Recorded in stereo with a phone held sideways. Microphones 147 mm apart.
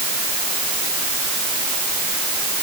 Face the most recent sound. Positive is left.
No sound to turn to.